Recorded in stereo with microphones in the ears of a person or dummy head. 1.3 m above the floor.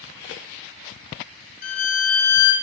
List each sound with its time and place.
1.6 s a violin: 85° left, 0.8 m